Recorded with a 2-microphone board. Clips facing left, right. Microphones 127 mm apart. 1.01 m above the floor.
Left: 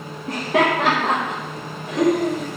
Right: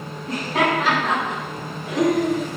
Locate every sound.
0.3 s laughter: 60° left (ahead or behind), 1.0 m; by 2.5 s 15° right (ahead or behind), 2 m